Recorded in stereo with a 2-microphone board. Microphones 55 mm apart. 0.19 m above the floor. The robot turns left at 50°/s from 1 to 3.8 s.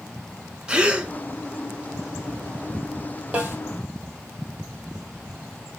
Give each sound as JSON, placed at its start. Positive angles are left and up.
{"t": 0.7, "sound": "a gasp", "side_deg": -15, "distance_m": 0.6}
{"t": 3.3, "sound": "a snare drum", "side_deg": -25, "distance_m": 2.0}